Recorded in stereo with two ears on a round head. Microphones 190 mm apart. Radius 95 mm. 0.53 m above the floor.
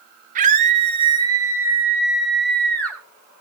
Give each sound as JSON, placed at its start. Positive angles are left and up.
{"t": 0.3, "sound": "a scream", "side_deg": -40, "distance_m": 1.9}